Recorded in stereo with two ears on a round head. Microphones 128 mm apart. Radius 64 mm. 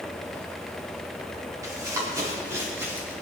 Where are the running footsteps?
25° right (ahead or behind), 5.5 m; by 3.1 s 15° right (ahead or behind), 4 m.